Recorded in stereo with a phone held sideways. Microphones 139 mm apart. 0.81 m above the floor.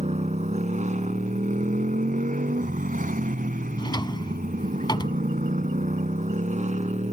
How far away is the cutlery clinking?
No cutlery clinking in this recording.